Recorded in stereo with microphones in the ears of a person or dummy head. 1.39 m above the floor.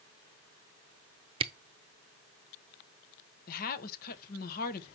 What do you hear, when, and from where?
1.4 s a camera shutter: 25° right (ahead or behind), 0.5 m
3.5 s a woman speaking: 55° left (ahead or behind), 1.1 m